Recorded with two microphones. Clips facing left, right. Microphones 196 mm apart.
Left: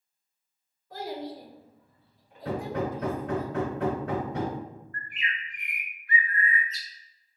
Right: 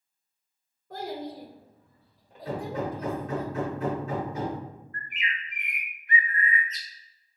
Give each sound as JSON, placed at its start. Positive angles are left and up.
{"t": 0.9, "sound": "a child speaking", "side_deg": -55, "distance_m": 1.8}
{"t": 2.5, "sound": "hammering", "side_deg": 75, "distance_m": 1.1}
{"t": 4.9, "sound": "a bird", "side_deg": -20, "distance_m": 0.6}